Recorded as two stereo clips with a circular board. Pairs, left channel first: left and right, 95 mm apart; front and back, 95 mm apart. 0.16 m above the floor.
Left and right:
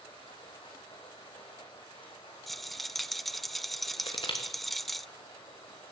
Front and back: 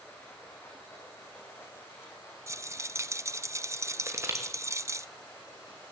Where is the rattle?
Straight behind, 0.6 m.